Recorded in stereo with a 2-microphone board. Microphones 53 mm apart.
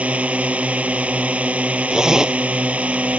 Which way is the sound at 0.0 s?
25° right (ahead or behind).